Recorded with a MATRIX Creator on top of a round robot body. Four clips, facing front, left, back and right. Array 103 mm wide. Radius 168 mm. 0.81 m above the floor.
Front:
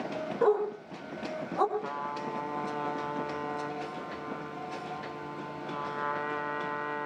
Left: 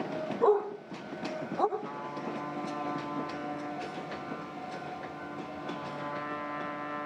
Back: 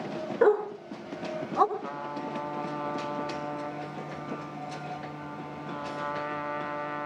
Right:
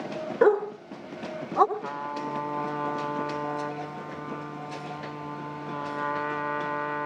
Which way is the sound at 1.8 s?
65° right.